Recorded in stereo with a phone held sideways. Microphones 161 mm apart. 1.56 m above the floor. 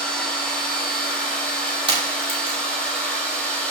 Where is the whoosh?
I don't hear a whoosh.